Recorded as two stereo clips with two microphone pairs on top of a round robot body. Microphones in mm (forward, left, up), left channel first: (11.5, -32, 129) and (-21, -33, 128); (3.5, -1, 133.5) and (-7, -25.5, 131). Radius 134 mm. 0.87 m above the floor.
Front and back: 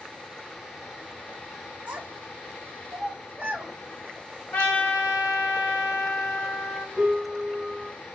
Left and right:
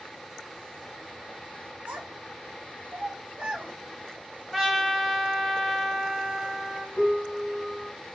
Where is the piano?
125° left, 0.9 m.